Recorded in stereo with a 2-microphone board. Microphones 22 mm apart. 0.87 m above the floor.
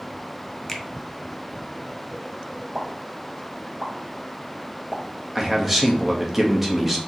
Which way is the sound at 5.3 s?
10° right (ahead or behind).